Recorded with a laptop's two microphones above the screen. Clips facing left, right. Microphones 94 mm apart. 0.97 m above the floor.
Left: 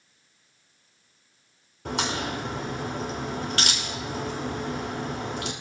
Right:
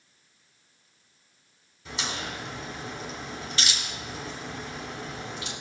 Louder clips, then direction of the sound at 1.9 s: Left 6 dB; 65° left (ahead or behind).